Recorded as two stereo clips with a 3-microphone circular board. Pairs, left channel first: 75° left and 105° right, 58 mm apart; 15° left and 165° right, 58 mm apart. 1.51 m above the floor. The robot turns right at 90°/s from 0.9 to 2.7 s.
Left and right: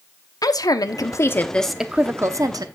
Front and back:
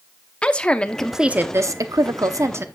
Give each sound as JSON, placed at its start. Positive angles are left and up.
{"t": 0.4, "sound": "a woman speaking", "azimuth_deg": 90, "distance_m": 0.8}